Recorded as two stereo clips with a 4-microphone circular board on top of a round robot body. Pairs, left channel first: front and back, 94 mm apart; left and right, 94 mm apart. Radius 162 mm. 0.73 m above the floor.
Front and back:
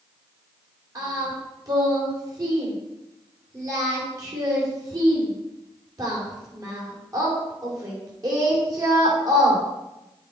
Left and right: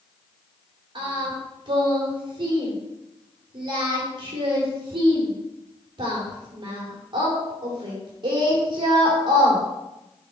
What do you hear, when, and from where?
0.9 s singing: 130° right, 2.5 m